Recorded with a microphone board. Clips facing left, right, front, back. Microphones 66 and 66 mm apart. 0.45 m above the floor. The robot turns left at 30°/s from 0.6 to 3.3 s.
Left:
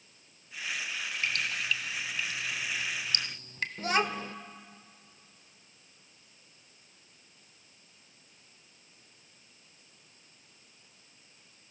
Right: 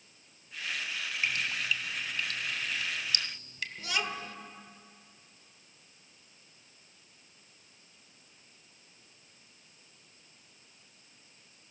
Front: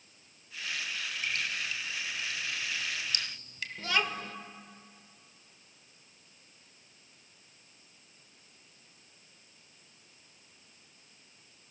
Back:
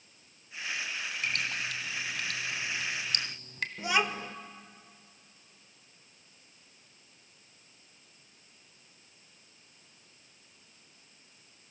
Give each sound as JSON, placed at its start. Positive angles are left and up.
{"t": 1.2, "sound": "dripping", "azimuth_deg": -160, "distance_m": 1.4}
{"t": 3.8, "sound": "a child speaking", "azimuth_deg": 110, "distance_m": 1.2}